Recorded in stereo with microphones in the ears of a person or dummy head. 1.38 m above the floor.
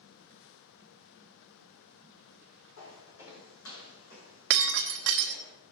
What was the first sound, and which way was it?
Footsteps, 60° left (ahead or behind).